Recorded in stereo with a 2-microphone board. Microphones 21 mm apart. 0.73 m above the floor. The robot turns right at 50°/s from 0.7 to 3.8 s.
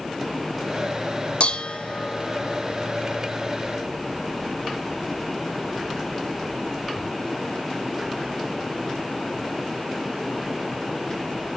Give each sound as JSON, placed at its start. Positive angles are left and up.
{"t": 1.4, "sound": "dishes clattering", "side_deg": 70, "distance_m": 1.2}